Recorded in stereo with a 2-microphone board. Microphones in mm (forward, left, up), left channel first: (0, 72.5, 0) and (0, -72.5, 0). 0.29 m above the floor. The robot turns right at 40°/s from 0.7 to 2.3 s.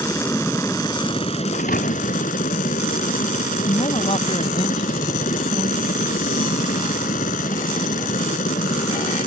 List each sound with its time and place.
0.0 s a helicopter: 25° left; by 9.3 s 85° left
1.5 s a thud: 90° left; by 2.2 s 60° left (ahead or behind)
3.6 s a woman speaking: 45° left (ahead or behind)